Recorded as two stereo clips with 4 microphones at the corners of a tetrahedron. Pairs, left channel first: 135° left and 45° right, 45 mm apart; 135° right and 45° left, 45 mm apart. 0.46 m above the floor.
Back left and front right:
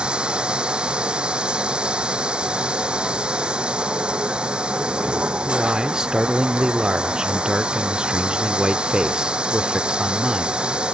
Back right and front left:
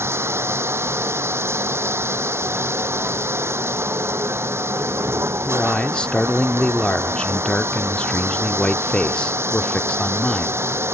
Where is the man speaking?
100° right.